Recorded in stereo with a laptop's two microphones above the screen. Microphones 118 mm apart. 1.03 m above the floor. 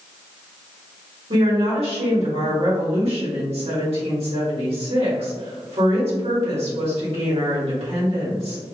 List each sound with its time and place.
1.3 s a woman speaking: 55° right (ahead or behind), 1.7 m